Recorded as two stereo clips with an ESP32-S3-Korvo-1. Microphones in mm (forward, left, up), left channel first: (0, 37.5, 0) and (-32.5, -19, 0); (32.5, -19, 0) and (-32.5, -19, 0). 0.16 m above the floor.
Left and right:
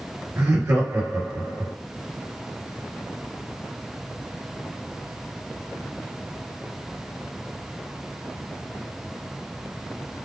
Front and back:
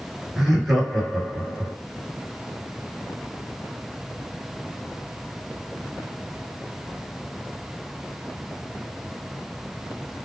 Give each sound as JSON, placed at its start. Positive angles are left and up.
{"t": 0.4, "sound": "laughter", "azimuth_deg": -90, "distance_m": 1.8}